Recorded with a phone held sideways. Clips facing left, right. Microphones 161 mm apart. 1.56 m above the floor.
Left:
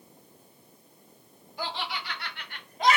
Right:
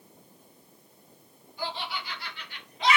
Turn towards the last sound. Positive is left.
turn(degrees=40)  # may be behind; listen again after turning